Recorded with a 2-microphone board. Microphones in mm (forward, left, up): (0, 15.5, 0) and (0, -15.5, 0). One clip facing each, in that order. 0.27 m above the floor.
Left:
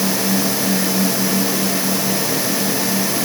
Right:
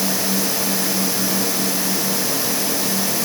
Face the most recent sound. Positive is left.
No sound to turn to.